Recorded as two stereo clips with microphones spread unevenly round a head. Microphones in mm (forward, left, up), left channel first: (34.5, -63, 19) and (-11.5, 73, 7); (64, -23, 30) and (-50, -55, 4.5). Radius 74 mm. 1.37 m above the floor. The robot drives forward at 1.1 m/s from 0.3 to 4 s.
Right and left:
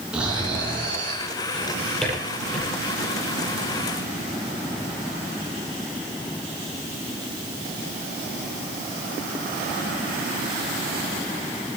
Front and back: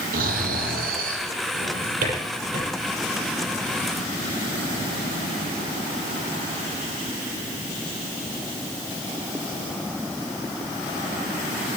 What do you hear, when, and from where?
0.1 s snoring: 165° right, 4.5 m; by 1.2 s 170° right, 5.5 m
1.5 s a drawer: 155° right, 9.5 m; by 2.7 s 160° right, 11 m